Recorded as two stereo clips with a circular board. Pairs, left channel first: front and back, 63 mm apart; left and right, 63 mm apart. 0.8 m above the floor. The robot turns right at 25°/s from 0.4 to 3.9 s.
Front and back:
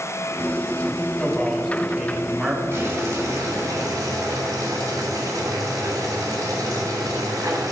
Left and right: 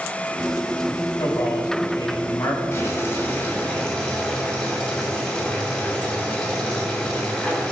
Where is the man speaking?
75° left, 1.5 m; by 2.6 s 115° left, 1.5 m.